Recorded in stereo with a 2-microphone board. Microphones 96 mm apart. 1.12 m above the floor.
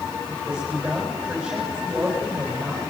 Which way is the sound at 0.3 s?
10° right (ahead or behind).